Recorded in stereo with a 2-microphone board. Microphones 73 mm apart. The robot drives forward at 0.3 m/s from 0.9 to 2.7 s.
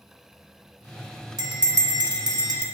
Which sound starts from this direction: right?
A bell, at 1.4 s.